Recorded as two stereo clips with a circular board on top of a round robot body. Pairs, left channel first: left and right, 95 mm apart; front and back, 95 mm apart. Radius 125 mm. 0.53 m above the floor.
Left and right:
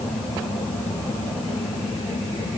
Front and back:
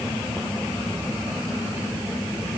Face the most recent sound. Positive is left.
No sound to turn to.